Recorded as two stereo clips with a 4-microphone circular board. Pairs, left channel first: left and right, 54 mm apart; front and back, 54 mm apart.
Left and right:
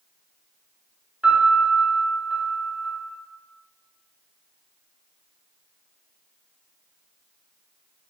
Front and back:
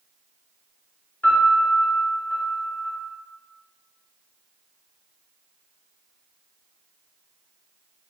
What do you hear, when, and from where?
1.2 s a piano: 30° right, 1.2 m